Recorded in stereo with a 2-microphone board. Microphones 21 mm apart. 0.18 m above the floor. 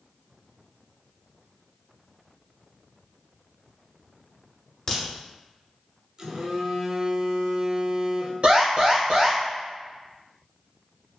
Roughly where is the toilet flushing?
No toilet flushing in this recording.